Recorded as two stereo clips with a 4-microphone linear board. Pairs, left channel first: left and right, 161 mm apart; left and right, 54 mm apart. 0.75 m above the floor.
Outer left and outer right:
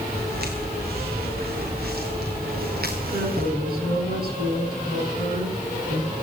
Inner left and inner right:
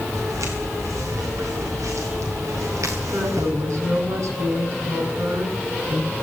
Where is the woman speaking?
85° right, 6 m.